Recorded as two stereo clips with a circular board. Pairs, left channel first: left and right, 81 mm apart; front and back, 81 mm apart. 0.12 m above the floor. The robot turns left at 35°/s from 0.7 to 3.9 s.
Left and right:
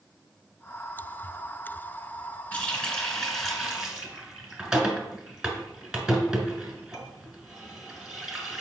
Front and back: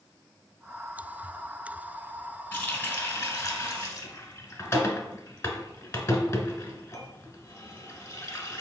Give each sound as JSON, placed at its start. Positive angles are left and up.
{"t": 2.5, "sound": "a running tap", "azimuth_deg": 35, "distance_m": 1.0}